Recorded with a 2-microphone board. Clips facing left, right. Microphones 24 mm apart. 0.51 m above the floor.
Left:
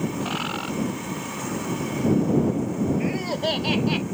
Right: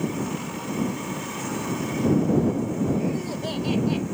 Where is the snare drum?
No snare drum in this recording.